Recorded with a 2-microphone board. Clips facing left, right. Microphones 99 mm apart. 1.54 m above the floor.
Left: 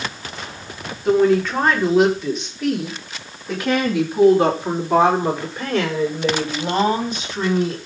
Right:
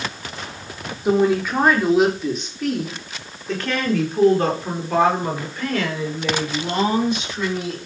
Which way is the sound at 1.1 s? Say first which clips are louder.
Left 2 dB; 10° right (ahead or behind).